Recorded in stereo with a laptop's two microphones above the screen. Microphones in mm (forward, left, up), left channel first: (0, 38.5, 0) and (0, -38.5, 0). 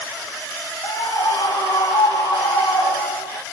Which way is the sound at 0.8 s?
65° left (ahead or behind).